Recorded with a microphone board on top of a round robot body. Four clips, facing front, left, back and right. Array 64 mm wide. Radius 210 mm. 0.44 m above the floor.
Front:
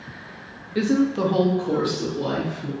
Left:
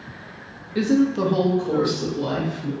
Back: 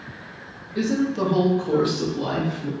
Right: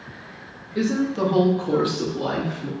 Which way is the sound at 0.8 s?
35° left.